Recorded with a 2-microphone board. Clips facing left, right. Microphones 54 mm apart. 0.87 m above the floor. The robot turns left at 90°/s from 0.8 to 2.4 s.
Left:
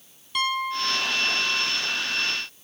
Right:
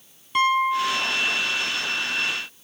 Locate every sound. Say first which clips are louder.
0.3 s a piano: right 6 dB; 155° right; by 1.7 s 125° left